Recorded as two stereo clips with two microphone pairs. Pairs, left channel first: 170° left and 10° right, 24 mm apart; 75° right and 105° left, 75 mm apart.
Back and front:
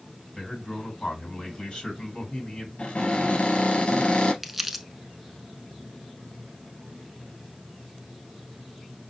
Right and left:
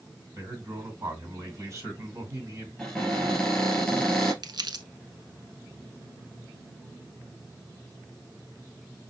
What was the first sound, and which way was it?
A man speaking, 140° left.